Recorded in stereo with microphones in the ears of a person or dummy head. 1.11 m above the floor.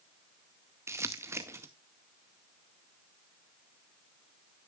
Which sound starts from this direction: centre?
Crumpling, at 0.9 s.